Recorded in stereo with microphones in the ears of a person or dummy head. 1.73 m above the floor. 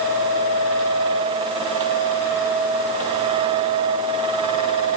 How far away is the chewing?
No chewing in this recording.